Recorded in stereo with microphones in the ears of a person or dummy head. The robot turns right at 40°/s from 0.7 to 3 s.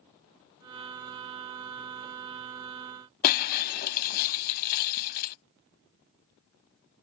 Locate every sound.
3.2 s breaking glass: 50° left (ahead or behind)